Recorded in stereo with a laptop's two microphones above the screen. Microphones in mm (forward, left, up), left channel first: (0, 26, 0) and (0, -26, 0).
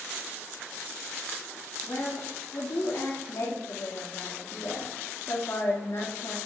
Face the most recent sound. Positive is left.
turn(degrees=80)